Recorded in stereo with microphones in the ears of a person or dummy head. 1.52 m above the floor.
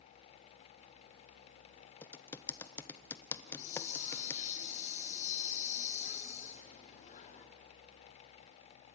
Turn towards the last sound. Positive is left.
turn(degrees=40)  # may be behind; listen again after turning